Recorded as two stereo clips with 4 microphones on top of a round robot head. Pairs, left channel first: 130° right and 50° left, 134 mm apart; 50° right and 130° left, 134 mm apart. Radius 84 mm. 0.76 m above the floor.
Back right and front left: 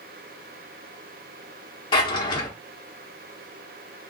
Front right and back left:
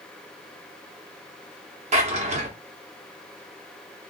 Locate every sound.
1.9 s a drawer: 170° left, 0.9 m